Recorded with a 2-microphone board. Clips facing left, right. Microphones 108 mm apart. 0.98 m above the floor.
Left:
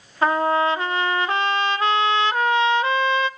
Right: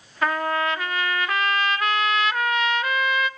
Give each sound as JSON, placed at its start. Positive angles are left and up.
{"t": 0.2, "sound": "a trumpet", "side_deg": 30, "distance_m": 0.6}